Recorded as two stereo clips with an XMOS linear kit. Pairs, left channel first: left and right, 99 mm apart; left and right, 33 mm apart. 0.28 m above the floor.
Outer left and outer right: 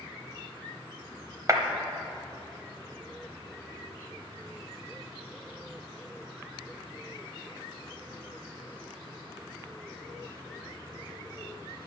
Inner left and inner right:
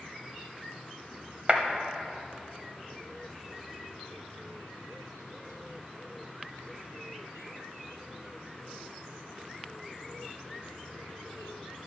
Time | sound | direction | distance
1.5 | a clap | 35° right (ahead or behind) | 0.9 m